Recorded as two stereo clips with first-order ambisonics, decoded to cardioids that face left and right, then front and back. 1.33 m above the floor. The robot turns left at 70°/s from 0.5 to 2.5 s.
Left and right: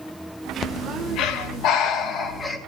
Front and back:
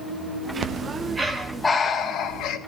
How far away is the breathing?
About 1.1 m.